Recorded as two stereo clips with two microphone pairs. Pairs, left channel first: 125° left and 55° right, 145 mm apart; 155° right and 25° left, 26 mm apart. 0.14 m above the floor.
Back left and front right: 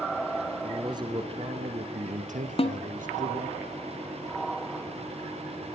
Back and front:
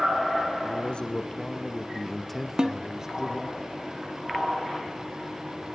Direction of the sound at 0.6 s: 115° right.